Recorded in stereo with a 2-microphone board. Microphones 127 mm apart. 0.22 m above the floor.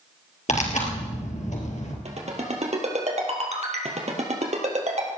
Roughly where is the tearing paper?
Left.